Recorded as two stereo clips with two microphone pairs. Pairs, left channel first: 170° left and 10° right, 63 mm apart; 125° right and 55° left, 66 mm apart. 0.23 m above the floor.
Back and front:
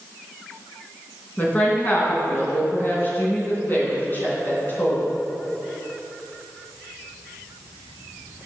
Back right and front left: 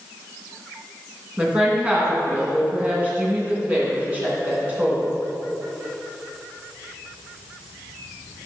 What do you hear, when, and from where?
1.4 s a woman speaking: 120° left, 3 m